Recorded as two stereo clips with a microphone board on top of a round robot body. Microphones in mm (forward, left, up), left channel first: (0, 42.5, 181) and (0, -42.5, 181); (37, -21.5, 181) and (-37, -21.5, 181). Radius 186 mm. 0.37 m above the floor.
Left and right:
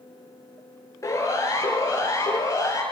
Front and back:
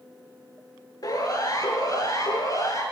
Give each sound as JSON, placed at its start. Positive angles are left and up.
{"t": 1.0, "sound": "a siren", "azimuth_deg": 35, "distance_m": 7.5}